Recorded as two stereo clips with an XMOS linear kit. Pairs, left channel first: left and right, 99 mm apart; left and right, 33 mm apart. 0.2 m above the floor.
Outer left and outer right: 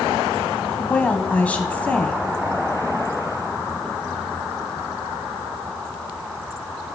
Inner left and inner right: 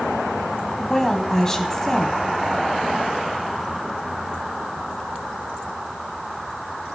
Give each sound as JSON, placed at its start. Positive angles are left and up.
{"t": 0.8, "sound": "a woman speaking", "side_deg": 15, "distance_m": 1.3}